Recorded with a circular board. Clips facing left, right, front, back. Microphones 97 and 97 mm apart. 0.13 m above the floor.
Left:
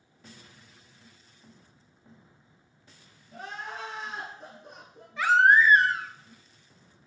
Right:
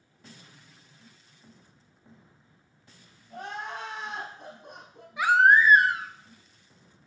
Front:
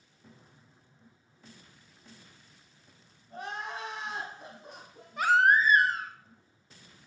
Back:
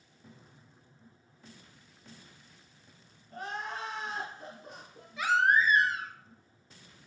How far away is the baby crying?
About 0.8 m.